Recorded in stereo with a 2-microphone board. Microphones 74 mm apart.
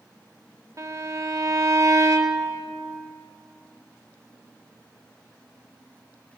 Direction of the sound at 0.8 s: 45° right (ahead or behind).